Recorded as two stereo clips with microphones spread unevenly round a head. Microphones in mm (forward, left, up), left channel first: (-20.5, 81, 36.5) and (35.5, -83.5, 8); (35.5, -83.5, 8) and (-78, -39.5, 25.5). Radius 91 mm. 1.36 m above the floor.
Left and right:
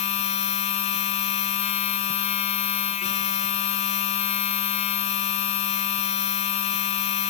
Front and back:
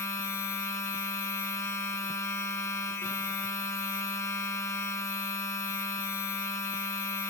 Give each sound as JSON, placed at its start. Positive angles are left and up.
{"t": 0.0, "sound": "a machine running", "azimuth_deg": 60, "distance_m": 0.8}